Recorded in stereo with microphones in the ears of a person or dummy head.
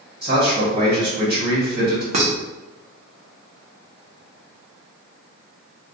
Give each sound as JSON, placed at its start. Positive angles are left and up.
{"t": 0.2, "sound": "a man speaking", "side_deg": -55, "distance_m": 1.3}
{"t": 2.1, "sound": "dishes clattering", "side_deg": -40, "distance_m": 0.6}